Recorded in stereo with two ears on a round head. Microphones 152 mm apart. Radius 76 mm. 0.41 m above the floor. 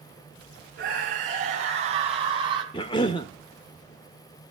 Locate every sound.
0.8 s a scream: 55° right (ahead or behind), 2.5 m; by 2.6 s 30° right (ahead or behind), 3 m
2.7 s a cough: 30° left (ahead or behind), 0.9 m